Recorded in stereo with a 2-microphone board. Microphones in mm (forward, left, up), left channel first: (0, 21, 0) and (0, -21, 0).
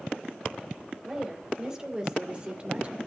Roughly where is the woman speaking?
Centre.